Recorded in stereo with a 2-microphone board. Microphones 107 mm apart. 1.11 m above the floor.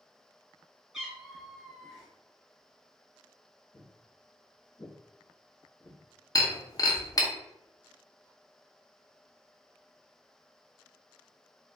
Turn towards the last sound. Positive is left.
turn(degrees=35)  # may be behind; listen again after turning